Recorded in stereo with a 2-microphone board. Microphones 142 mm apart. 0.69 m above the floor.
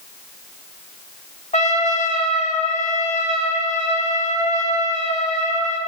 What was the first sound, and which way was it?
A trumpet, 55° left (ahead or behind).